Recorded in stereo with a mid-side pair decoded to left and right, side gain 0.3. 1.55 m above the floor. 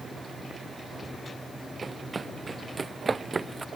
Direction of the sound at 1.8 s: 35° right.